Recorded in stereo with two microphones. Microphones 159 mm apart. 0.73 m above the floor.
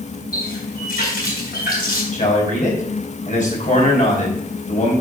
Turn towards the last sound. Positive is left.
turn(degrees=55)  # may be behind; listen again after turning